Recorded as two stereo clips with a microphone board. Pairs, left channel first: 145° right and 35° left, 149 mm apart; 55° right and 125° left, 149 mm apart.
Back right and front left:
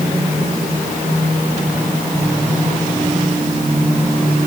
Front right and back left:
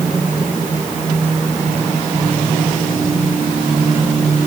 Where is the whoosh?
I don't hear a whoosh.